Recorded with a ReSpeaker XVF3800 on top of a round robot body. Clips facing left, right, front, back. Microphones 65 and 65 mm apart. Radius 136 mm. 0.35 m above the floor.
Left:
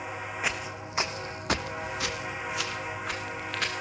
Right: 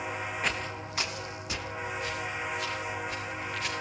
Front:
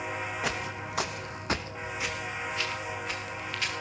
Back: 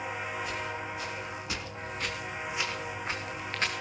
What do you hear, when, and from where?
0.4 s footsteps: 5° left, 1.5 m; by 3.7 s 125° left, 2.5 m